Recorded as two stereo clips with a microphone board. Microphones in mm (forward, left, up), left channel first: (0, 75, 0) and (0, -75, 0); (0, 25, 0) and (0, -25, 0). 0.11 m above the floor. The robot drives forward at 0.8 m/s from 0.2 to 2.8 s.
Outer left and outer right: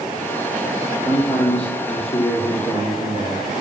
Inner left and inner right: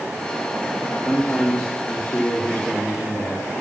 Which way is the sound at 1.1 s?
40° left (ahead or behind).